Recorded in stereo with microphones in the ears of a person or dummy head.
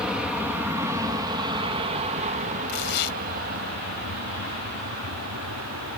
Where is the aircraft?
5° right (ahead or behind); by 6.0 s 70° right (ahead or behind).